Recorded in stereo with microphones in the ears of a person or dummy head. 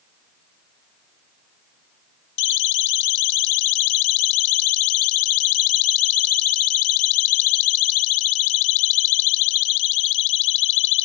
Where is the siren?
65° left (ahead or behind); by 11.1 s 70° left (ahead or behind).